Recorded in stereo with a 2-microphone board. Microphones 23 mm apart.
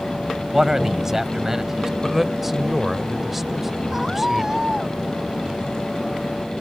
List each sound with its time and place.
0.5 s a man speaking: 20° right (ahead or behind)
2.0 s a man speaking: 10° right (ahead or behind)
3.9 s a scream: 20° right (ahead or behind)